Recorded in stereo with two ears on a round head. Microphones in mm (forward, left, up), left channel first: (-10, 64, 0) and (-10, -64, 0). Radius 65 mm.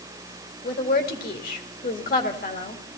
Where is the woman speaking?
60° left (ahead or behind), 2 m.